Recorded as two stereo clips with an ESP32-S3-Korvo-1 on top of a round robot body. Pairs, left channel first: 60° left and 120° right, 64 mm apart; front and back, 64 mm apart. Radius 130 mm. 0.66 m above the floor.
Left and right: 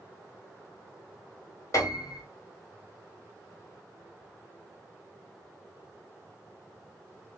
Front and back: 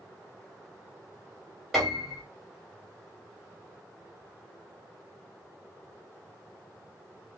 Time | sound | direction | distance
1.7 | a piano | 90° left | 2 m